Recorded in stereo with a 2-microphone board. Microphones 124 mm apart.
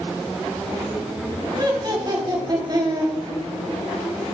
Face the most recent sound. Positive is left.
turn(degrees=-35)  # may be behind; listen again after turning